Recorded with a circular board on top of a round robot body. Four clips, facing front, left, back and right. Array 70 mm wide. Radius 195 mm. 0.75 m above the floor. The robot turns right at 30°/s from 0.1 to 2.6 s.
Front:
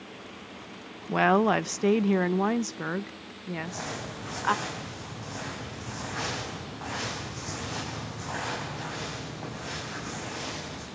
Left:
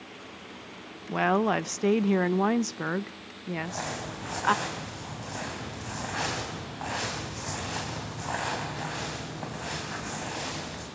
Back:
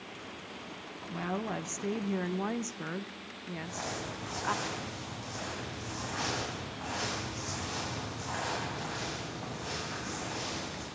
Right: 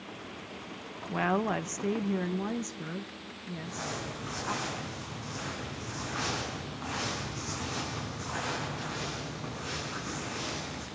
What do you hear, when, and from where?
1.1 s a woman speaking: 10° left, 0.6 m; by 4.5 s 60° left, 0.6 m
3.5 s crumpling: 80° left, 7 m